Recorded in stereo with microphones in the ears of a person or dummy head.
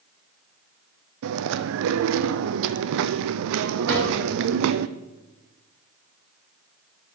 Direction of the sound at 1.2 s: 70° right (ahead or behind).